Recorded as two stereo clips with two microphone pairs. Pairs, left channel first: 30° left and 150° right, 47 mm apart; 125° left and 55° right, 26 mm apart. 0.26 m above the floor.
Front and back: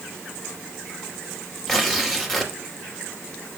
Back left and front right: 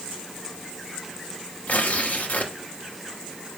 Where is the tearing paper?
115° left, 3 m.